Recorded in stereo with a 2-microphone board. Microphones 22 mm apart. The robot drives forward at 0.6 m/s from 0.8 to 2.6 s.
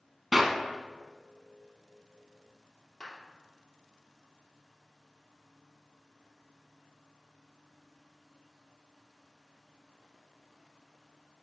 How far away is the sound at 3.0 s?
About 3 m.